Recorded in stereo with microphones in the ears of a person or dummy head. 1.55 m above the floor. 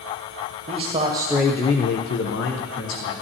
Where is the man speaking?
35° right (ahead or behind), 1.2 m; by 3.1 s 75° left (ahead or behind), 1.7 m.